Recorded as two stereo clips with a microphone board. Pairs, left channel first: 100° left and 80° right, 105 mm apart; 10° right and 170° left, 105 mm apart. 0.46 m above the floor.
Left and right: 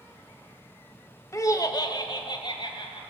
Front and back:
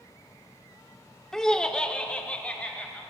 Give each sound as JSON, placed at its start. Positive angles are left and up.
{"t": 1.3, "sound": "laughter", "azimuth_deg": 70, "distance_m": 0.8}